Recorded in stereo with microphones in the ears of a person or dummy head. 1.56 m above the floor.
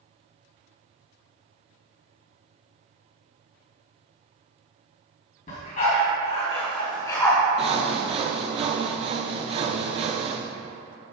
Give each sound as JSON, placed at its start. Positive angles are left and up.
{"t": 5.5, "sound": "a dog barking", "side_deg": 50, "distance_m": 3.0}
{"t": 7.6, "sound": "sawing", "side_deg": -35, "distance_m": 0.6}